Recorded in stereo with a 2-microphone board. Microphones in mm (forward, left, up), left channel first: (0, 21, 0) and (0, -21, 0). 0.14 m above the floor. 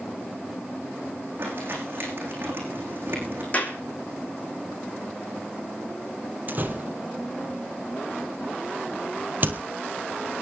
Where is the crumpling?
45° right (ahead or behind), 9.5 m.